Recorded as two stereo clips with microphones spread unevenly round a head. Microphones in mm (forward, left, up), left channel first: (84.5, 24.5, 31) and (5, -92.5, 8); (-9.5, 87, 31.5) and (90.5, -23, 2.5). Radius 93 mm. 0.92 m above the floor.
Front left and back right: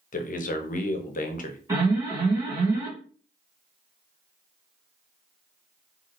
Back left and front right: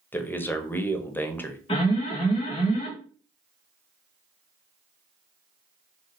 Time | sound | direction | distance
0.1 | a man speaking | 50° left | 0.8 m
1.7 | an alarm | 170° right | 1.9 m